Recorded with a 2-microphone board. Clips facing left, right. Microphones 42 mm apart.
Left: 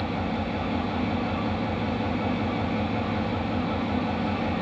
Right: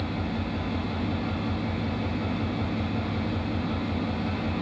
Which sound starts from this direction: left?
An engine running, at 0.0 s.